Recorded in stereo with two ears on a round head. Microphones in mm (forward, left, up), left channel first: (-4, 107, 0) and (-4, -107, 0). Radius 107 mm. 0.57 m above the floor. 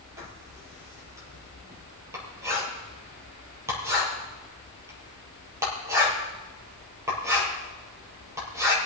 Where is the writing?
10° right (ahead or behind), 4.5 m.